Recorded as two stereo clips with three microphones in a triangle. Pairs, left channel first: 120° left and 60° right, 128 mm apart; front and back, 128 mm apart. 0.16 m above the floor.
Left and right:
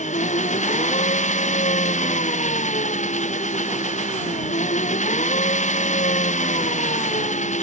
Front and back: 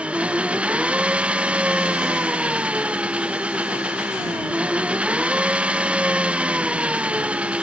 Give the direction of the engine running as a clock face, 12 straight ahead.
9 o'clock.